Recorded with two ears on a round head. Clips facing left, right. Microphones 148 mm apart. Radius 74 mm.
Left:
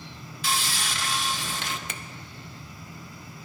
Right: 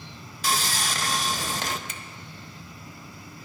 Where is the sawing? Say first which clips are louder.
Right 3 dB; 35° right (ahead or behind), 0.5 m.